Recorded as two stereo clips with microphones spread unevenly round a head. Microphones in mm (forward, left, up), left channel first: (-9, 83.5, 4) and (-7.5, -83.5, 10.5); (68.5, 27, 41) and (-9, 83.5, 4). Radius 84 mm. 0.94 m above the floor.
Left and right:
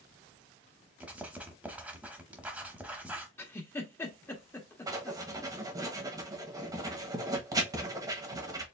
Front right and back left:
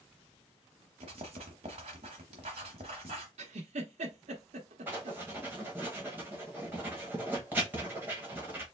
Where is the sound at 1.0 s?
165° right, 0.9 m.